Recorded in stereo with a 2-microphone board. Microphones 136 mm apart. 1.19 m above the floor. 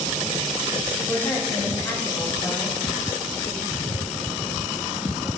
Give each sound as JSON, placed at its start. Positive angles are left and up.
{"t": 1.1, "sound": "a woman speaking", "side_deg": 25, "distance_m": 2.5}